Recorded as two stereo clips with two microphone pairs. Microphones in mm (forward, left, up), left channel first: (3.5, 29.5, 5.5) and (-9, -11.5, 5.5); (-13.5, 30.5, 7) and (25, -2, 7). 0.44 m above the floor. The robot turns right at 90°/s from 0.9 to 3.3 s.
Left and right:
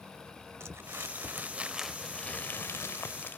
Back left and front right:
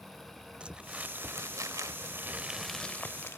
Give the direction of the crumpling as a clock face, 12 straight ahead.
4 o'clock.